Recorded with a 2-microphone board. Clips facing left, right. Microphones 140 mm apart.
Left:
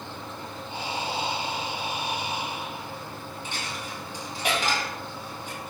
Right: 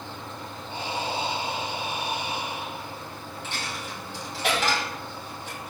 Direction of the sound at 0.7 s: 50° right (ahead or behind).